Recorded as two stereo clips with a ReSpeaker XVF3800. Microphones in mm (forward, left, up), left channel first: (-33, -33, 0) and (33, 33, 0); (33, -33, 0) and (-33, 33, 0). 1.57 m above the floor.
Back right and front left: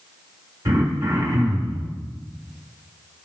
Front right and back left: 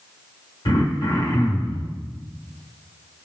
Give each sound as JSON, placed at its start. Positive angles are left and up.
{"t": 0.7, "sound": "throat clearing", "azimuth_deg": -10, "distance_m": 1.6}